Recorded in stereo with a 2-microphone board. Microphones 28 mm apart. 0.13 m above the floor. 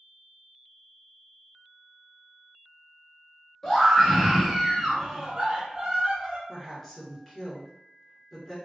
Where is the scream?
20° left (ahead or behind), 1.4 m; by 6.4 s 30° right (ahead or behind), 1.9 m.